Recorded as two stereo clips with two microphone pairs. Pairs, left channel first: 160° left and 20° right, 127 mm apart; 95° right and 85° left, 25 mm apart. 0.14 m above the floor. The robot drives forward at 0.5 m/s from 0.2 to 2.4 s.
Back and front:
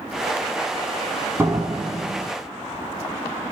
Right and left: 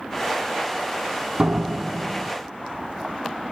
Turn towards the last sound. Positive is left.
turn(degrees=50)